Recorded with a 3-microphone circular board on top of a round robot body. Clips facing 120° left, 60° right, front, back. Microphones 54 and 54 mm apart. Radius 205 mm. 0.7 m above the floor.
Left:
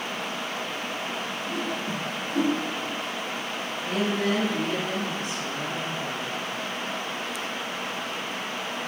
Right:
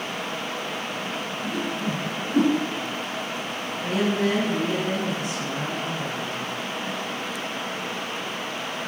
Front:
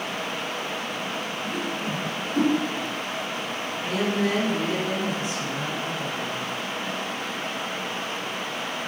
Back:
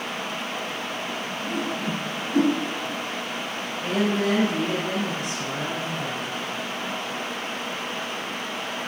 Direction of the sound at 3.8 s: 145° right.